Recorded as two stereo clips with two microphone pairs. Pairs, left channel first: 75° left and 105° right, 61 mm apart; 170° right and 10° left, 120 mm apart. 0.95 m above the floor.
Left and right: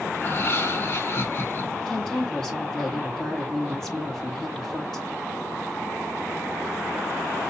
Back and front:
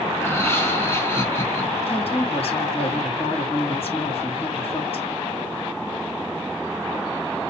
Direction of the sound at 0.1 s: 120° left.